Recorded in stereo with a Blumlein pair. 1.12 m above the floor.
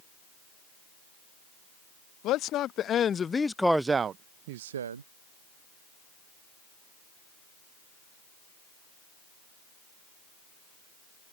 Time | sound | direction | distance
2.2 | a man speaking | 35° left | ?